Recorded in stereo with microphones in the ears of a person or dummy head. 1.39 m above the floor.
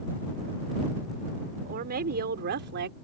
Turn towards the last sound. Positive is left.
turn(degrees=-60)  # may be behind; listen again after turning